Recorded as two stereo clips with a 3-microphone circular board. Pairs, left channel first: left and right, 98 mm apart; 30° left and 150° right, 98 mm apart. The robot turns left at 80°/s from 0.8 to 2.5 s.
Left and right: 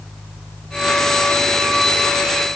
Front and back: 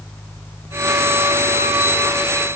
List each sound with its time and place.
Only background noise.